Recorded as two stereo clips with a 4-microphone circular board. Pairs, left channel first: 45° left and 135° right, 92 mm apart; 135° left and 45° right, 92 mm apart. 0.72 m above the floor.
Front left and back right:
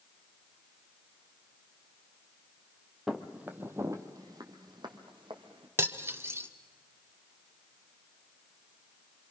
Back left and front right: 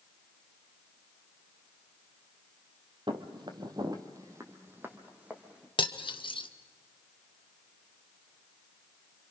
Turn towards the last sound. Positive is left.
turn(degrees=160)